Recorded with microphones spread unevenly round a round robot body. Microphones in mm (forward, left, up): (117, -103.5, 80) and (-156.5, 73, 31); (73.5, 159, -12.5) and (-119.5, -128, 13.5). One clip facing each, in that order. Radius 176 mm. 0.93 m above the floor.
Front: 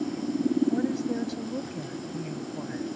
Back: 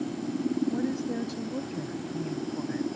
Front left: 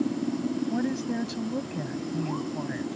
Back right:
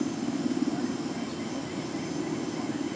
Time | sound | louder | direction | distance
0.7 | a woman speaking | front 2 dB, front left 3 dB | 60° left | ?